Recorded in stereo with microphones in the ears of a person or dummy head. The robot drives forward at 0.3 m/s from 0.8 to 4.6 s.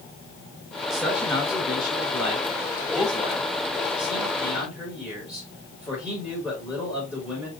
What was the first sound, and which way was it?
A man speaking, 5° right (ahead or behind).